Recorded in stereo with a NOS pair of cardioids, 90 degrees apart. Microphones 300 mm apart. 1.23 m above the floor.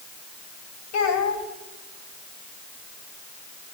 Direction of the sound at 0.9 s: 65° left.